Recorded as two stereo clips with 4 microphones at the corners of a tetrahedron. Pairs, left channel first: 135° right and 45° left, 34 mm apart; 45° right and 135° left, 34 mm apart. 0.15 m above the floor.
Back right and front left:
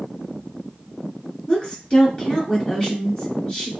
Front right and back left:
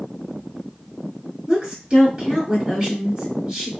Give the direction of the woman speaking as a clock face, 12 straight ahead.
5 o'clock.